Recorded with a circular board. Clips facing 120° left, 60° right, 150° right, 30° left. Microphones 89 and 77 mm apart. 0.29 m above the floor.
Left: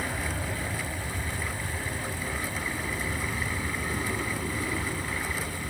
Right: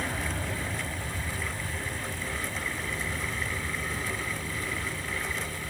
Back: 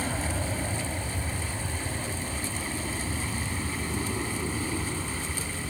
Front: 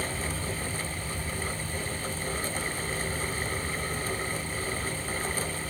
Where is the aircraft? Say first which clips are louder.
Even, back 2 dB; 150° right; by 5.7 s 170° left.